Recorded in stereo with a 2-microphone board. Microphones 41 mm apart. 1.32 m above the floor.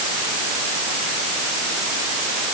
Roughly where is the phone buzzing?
No phone buzzing in this recording.